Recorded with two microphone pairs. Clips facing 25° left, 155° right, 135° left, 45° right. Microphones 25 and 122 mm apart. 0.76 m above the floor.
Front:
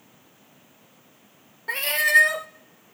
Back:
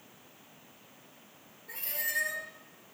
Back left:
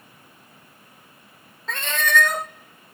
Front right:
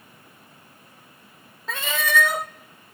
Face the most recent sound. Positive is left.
turn(degrees=40)